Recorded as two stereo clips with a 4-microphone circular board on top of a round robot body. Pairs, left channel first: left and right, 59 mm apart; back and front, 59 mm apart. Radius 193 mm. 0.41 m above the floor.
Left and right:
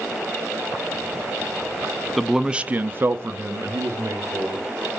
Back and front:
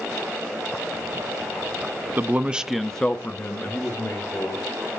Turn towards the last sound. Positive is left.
turn(degrees=-130)